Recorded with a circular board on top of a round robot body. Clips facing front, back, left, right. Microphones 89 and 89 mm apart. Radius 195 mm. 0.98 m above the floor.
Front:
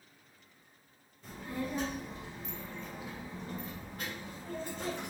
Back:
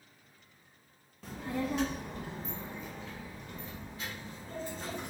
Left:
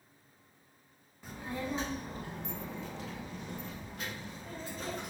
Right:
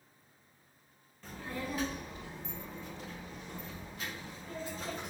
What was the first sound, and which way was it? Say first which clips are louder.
A child speaking: back 3 dB, left 2 dB; 170° left.